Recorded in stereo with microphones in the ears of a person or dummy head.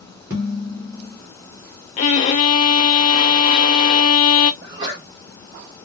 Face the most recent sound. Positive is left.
turn(degrees=-25)  # may be behind; listen again after turning